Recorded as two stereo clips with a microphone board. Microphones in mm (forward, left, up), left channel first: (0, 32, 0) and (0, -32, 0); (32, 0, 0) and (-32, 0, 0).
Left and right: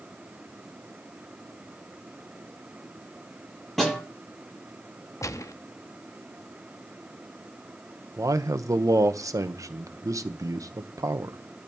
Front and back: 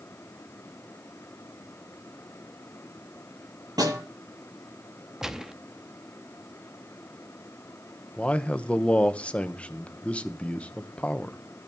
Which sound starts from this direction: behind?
A snare drum, at 3.8 s.